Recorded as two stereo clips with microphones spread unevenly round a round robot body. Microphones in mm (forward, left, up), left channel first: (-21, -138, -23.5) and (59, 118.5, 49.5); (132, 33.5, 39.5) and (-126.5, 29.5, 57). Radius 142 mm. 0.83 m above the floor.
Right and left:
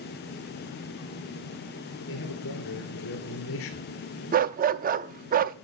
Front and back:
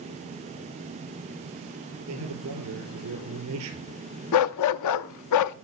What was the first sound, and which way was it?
A man speaking, 140° right.